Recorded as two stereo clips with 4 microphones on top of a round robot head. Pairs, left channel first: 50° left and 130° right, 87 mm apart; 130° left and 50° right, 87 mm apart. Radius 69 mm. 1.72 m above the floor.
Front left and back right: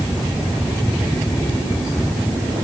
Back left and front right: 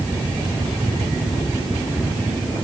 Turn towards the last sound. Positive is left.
No sound to turn to.